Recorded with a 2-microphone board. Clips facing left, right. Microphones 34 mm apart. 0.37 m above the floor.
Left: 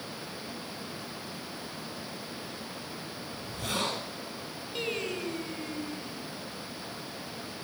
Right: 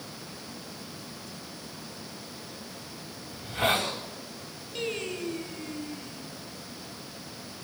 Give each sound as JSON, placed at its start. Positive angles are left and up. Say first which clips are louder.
{"t": 3.3, "sound": "a hiss", "louder": "right 9 dB", "side_deg": -65, "distance_m": 8.5}
{"t": 4.8, "sound": "singing", "louder": "right 1 dB", "side_deg": 5, "distance_m": 3.0}